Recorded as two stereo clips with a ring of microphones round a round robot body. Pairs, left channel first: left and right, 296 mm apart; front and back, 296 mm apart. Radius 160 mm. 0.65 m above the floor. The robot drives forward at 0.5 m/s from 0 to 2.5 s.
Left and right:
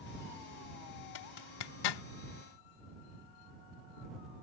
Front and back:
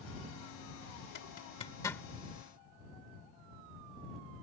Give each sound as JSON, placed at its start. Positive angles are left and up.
{"t": 1.1, "sound": "a zipper", "azimuth_deg": 60}